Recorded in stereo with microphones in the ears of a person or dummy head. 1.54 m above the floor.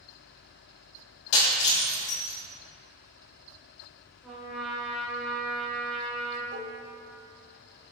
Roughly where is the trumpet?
Centre.